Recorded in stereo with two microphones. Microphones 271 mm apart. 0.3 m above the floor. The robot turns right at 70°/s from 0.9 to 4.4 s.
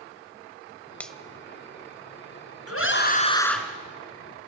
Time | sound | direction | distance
1.0 | a finger snap | 5° left (ahead or behind) | 0.8 m
2.7 | a scream | 115° left | 3 m